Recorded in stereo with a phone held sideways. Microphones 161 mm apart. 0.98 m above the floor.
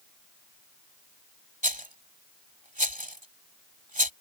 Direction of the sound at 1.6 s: 55° right (ahead or behind).